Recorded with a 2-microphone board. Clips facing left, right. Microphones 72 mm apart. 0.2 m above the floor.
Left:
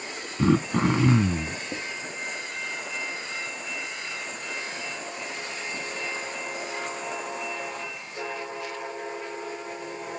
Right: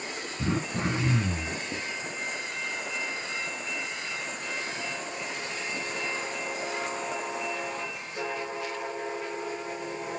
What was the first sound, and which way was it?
Throat clearing, 80° left.